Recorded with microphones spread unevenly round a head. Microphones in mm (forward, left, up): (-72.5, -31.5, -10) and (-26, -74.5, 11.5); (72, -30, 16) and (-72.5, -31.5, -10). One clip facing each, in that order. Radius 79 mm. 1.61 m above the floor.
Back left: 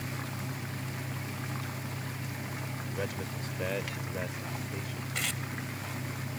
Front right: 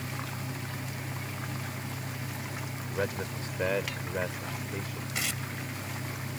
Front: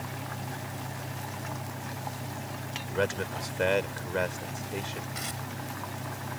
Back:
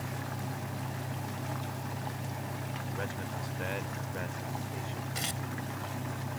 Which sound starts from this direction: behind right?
Tearing paper, at 5.2 s.